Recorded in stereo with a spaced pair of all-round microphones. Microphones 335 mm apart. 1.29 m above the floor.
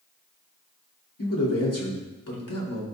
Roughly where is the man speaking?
Left.